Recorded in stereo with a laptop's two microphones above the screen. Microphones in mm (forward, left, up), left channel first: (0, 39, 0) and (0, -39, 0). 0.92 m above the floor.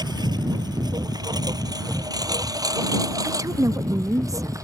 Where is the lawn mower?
75° right (ahead or behind); by 4.6 s 50° right (ahead or behind).